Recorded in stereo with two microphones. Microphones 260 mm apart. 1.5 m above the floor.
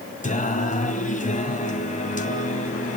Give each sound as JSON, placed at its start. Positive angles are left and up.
{"t": 0.2, "sound": "singing", "side_deg": 30, "distance_m": 2.5}